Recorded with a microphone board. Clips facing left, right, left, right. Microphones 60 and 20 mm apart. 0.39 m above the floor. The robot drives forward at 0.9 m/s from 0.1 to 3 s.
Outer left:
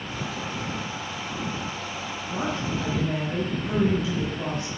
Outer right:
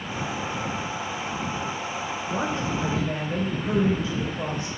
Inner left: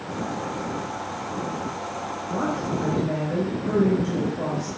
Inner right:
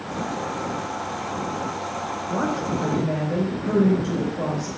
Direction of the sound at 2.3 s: 40° right (ahead or behind).